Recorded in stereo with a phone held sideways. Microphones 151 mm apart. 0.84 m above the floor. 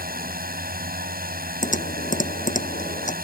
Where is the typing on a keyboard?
60° left (ahead or behind).